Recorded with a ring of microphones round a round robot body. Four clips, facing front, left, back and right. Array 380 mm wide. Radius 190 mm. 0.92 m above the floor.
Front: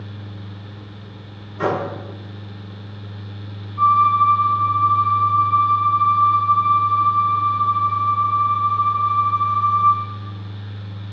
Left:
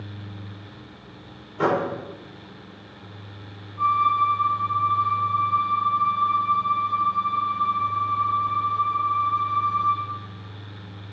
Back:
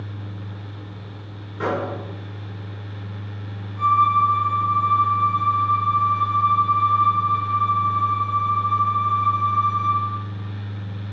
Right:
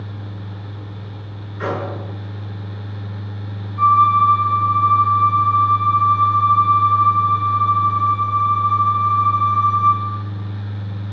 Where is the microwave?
95° left, 3 m.